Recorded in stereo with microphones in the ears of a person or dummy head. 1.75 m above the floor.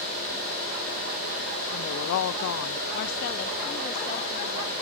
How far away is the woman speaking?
About 0.8 m.